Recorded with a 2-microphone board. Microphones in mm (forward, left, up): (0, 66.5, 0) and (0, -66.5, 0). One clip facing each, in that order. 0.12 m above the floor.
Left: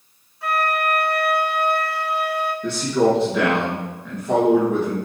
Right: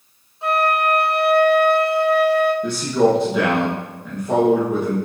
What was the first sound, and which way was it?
A flute, 25° right (ahead or behind).